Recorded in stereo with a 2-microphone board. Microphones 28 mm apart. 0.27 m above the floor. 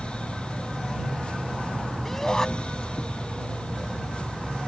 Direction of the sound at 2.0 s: 15° left (ahead or behind).